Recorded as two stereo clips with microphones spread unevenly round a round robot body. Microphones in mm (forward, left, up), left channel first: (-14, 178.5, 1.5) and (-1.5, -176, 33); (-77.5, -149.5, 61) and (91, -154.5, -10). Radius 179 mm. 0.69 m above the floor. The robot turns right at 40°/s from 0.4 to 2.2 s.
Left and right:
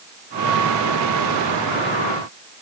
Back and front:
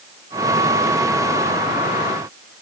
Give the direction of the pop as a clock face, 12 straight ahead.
No pop in this recording.